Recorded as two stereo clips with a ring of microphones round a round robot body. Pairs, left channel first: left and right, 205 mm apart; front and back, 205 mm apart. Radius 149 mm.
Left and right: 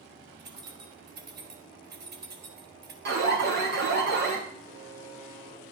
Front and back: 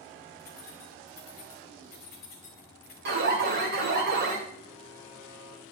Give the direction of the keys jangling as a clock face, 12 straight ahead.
2 o'clock.